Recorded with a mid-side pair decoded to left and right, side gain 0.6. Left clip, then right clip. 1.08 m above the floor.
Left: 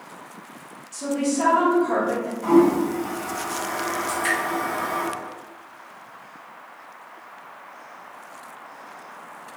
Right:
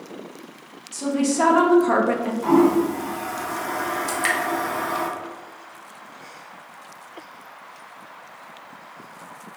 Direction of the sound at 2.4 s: 10° right.